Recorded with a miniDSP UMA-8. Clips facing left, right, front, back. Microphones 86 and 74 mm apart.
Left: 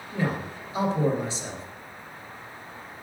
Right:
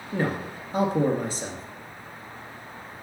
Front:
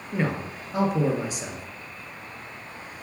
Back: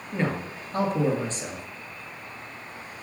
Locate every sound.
0.1 s a man speaking: 80° right, 1.9 m